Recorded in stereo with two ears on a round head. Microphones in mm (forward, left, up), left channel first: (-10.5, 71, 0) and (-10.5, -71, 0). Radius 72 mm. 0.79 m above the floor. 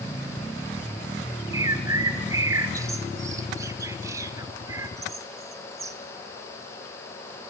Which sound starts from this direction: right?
A bird, at 1.5 s.